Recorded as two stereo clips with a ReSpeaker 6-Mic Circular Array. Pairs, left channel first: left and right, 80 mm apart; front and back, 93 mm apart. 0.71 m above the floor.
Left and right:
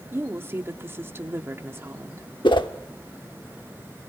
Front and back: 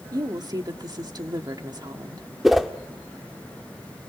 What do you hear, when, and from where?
0.1 s a woman speaking: 145° right, 1.5 m
2.4 s a whoosh: 90° left, 1.0 m